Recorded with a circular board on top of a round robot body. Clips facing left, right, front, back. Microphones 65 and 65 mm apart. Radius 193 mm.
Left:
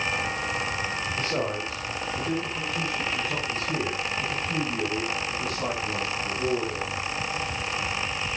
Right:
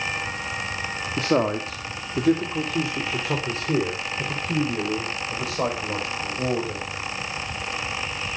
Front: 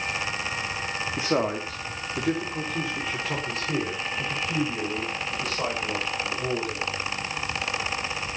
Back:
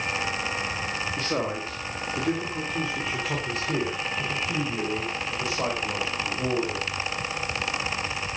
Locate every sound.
1.2 s a man speaking: 75° right, 3 m; by 6.9 s 100° right, 7 m